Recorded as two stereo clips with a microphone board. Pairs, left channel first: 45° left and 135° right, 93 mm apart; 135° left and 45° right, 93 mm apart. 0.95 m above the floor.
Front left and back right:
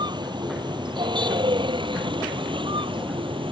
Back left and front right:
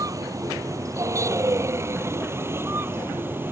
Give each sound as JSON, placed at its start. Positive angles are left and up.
{"t": 0.0, "sound": "a vehicle", "azimuth_deg": -100}